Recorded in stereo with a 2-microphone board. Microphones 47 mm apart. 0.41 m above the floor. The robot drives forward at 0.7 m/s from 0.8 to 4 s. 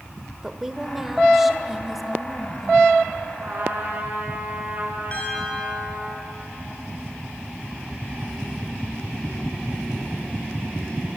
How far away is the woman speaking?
About 1.1 m.